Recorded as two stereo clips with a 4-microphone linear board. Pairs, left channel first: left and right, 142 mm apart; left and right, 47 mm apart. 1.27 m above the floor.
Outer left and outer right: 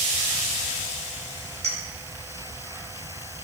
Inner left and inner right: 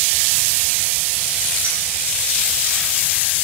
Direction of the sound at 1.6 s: 50° right (ahead or behind).